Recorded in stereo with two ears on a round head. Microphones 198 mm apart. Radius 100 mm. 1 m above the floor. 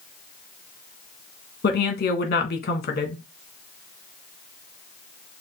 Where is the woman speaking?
45° left (ahead or behind), 1.3 m.